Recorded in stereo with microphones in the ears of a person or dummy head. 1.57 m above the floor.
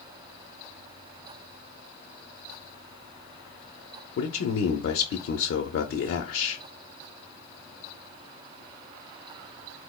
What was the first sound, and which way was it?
A man speaking, 70° left (ahead or behind).